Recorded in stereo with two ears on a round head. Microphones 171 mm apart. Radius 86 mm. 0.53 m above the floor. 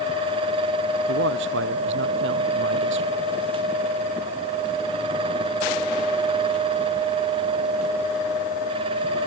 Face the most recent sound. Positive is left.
turn(degrees=-70)  # may be behind; listen again after turning